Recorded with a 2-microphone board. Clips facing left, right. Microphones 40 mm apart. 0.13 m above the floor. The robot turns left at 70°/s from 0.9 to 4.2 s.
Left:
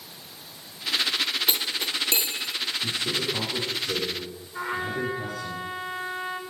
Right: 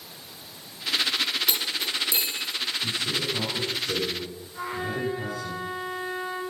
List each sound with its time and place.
1.5 s cutlery clinking: 30° left (ahead or behind), 2.5 m; by 2.5 s 65° left (ahead or behind), 2.5 m
2.8 s a man speaking: 90° left, 10 m; by 5.5 s 10° right, 10 m
4.5 s a trumpet: 40° left (ahead or behind), 6 m